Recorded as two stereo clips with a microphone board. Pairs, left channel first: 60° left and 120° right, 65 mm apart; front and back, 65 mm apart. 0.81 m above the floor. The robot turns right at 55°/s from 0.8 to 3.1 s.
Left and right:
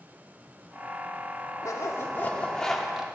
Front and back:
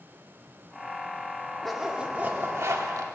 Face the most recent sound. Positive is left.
turn(degrees=165)